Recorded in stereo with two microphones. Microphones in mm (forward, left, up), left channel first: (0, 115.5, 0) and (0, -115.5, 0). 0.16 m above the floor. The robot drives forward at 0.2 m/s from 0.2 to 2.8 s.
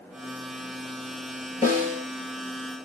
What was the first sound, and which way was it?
A snare drum, 35° left (ahead or behind).